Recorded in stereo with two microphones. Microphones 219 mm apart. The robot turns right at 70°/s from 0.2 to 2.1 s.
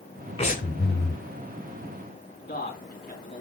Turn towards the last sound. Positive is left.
turn(degrees=45)  # may be behind; listen again after turning